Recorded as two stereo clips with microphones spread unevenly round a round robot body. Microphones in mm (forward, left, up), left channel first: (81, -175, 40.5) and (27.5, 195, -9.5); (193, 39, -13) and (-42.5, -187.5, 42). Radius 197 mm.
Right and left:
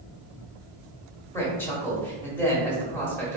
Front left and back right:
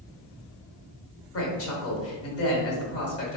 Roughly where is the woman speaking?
Ahead.